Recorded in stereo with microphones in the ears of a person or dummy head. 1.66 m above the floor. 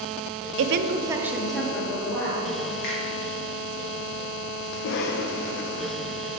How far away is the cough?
About 0.7 m.